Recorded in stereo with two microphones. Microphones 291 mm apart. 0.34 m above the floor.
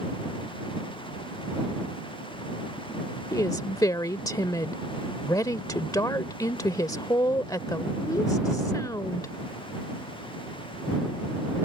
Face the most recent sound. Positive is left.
turn(degrees=10)  # may be behind; listen again after turning